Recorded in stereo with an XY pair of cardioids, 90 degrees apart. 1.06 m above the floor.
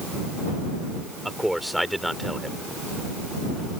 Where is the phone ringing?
No phone ringing in this recording.